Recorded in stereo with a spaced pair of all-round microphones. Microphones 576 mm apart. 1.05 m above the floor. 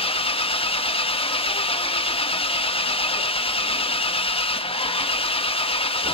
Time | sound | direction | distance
0.0 | an engine running | 10° left (ahead or behind) | 0.8 m